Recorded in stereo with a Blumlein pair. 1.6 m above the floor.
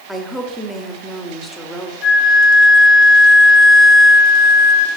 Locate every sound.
0.1 s a woman speaking: straight ahead, 1.1 m
2.0 s a flute: 30° left, 0.8 m